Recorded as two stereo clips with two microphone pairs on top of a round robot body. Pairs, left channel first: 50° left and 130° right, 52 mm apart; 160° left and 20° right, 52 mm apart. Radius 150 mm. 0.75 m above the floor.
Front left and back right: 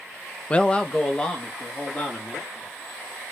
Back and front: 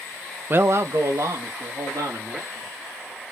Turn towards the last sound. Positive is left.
turn(degrees=-25)